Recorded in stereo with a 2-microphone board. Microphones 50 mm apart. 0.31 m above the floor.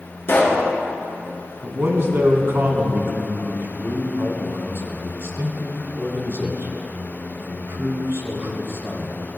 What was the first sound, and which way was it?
A pop, 45° left (ahead or behind).